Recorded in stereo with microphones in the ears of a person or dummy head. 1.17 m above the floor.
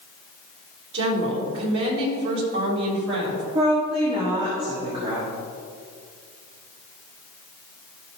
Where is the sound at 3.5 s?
25° right (ahead or behind), 1.7 m.